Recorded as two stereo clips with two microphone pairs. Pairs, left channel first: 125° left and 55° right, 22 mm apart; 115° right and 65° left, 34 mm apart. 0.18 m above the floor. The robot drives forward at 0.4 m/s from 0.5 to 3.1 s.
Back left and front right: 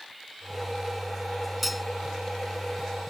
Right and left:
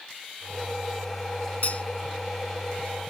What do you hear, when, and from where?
1.6 s cutlery clinking: 140° right; by 1.9 s 145° right